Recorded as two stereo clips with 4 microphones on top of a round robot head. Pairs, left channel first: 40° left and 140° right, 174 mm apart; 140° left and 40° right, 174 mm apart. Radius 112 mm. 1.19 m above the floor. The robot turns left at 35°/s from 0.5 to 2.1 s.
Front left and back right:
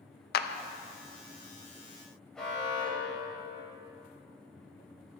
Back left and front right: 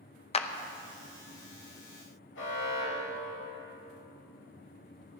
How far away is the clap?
About 0.8 m.